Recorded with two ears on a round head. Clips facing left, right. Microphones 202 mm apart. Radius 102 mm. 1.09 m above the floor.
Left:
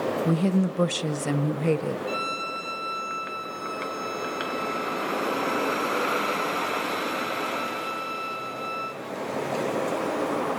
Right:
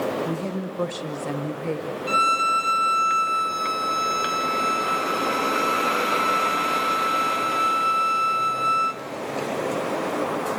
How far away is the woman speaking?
About 0.8 m.